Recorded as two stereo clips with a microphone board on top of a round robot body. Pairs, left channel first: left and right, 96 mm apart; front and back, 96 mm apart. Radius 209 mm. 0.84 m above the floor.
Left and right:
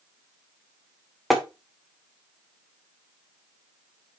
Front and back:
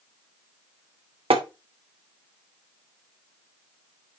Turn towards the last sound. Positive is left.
turn(degrees=180)